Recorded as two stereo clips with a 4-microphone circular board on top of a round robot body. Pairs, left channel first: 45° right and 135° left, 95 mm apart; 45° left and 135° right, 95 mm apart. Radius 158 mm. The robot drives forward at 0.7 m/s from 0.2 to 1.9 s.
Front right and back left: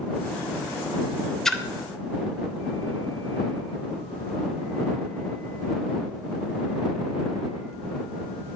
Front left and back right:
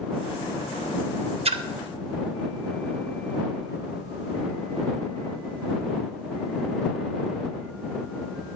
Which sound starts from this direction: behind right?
A splash, at 1.4 s.